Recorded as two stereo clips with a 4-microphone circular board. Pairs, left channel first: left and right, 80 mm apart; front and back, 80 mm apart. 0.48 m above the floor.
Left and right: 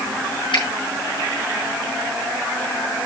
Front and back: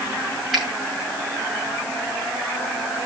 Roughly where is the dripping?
No dripping in this recording.